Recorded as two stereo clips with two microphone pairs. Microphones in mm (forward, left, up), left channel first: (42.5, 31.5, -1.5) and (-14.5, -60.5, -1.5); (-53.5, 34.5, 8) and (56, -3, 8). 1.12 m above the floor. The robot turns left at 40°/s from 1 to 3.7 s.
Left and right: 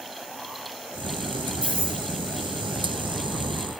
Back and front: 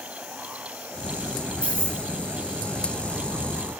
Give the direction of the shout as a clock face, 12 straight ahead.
No shout in this recording.